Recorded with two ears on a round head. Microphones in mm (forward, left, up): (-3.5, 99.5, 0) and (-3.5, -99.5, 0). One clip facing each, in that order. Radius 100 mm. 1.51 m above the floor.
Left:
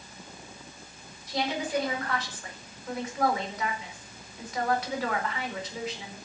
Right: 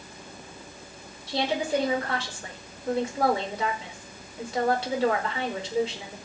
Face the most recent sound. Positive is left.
turn(degrees=-30)  # may be behind; listen again after turning